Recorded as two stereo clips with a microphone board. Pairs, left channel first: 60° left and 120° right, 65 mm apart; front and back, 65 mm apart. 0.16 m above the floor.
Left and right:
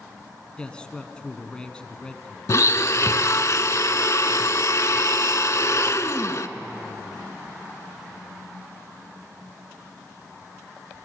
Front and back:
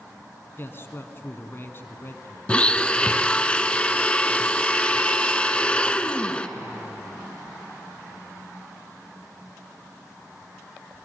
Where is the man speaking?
5° right, 1.5 m.